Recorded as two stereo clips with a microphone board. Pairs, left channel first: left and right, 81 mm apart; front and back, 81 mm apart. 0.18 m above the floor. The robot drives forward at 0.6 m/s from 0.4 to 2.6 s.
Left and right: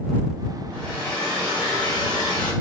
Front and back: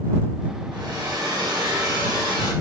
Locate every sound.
0.7 s a hair dryer: 155° left, 4 m; by 2.5 s 160° left, 5 m